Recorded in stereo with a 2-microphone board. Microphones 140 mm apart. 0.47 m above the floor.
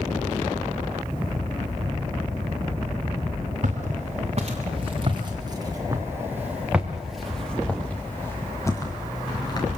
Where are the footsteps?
55° right (ahead or behind), 4 m; by 9.7 s 30° left (ahead or behind), 4.5 m.